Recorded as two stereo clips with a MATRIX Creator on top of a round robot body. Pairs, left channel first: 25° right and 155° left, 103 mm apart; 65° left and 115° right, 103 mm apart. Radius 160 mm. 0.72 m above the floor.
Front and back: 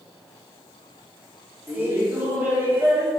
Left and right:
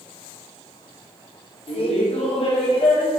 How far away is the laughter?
About 2 m.